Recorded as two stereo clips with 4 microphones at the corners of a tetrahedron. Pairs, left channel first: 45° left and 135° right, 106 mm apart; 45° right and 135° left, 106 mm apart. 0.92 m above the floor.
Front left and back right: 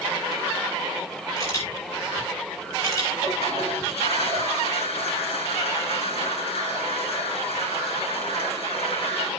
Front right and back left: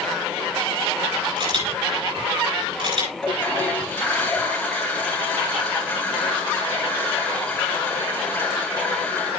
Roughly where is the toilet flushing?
Ahead left.